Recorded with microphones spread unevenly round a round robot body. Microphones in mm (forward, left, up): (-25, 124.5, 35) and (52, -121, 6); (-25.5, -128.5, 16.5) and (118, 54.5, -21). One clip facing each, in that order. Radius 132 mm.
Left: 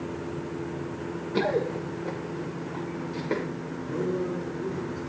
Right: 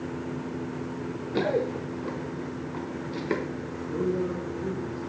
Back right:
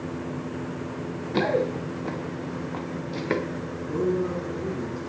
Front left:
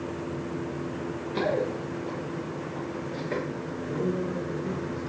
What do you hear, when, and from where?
1.3 s running footsteps: 165° right, 1.6 m; by 3.4 s 130° right, 2.5 m
3.8 s a man speaking: 165° right, 3 m